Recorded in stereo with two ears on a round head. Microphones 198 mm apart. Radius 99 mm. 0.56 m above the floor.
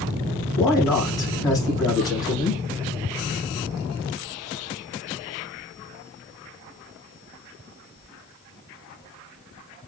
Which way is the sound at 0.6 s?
20° left (ahead or behind).